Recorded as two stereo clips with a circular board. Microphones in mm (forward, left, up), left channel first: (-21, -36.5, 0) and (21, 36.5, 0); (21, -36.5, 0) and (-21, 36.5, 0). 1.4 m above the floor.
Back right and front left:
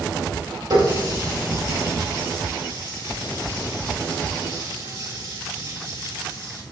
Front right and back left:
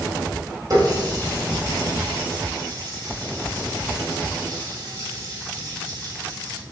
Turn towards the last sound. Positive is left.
turn(degrees=80)